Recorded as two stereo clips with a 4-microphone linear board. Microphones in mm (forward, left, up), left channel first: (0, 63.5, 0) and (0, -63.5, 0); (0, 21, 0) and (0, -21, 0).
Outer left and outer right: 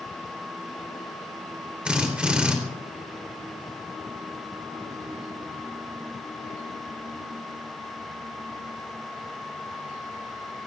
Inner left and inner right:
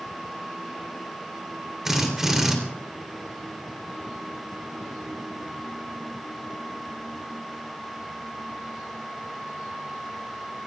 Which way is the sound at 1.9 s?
10° right (ahead or behind).